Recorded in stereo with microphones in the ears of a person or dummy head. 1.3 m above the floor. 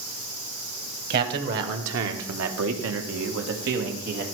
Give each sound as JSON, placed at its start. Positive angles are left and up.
{"t": 1.1, "sound": "a man speaking", "side_deg": -50, "distance_m": 1.2}